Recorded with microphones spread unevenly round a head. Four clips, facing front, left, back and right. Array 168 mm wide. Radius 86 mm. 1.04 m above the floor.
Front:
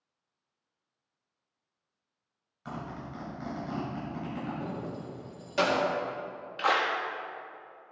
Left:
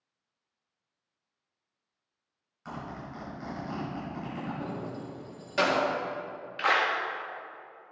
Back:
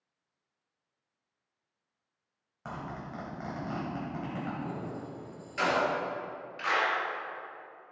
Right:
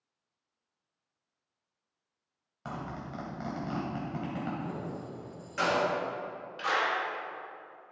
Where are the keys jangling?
35° left, 1.6 m.